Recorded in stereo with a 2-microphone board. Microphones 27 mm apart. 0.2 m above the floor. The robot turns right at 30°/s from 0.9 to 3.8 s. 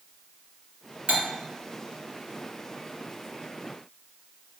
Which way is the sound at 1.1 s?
55° right (ahead or behind).